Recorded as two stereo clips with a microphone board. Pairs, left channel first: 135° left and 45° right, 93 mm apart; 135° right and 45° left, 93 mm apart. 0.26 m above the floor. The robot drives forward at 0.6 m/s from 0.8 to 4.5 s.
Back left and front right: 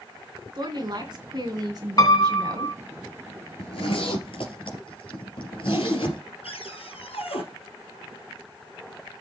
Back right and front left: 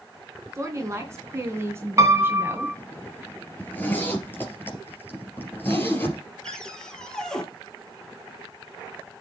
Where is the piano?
95° left, 1.1 m; by 2.8 s 120° left, 1.2 m.